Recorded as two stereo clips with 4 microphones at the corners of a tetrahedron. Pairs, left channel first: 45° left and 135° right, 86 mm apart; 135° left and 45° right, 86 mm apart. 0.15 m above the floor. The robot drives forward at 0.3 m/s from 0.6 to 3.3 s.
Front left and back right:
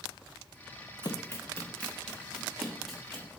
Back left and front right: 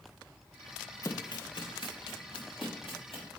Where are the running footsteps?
85° left, 0.8 m; by 3.4 s 135° left, 4 m.